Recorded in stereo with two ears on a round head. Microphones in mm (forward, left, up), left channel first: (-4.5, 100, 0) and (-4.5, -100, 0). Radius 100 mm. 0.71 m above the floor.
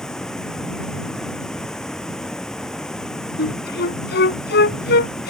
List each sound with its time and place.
0.0 s running water: 5° left (ahead or behind)
3.4 s a flute: 50° left (ahead or behind)